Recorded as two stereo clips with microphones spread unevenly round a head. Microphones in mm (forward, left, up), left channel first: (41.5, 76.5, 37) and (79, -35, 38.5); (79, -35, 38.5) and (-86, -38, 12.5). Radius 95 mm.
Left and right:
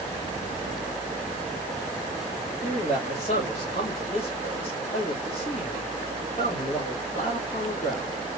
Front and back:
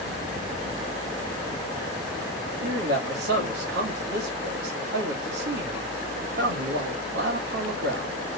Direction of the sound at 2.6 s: 160° left.